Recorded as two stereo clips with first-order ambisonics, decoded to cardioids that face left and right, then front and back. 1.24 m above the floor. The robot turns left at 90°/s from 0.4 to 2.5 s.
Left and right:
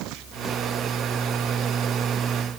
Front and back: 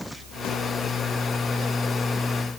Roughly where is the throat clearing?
I don't hear throat clearing.